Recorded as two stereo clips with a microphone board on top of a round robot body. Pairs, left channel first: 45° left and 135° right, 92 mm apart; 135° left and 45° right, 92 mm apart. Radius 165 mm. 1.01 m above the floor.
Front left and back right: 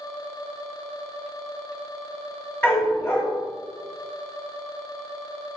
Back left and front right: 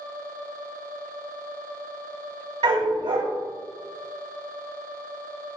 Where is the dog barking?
20° right, 6 m.